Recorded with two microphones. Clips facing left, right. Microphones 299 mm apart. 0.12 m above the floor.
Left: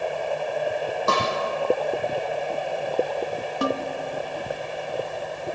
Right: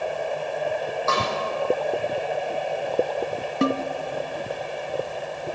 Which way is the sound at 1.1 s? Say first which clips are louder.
Left 2 dB; 40° left (ahead or behind).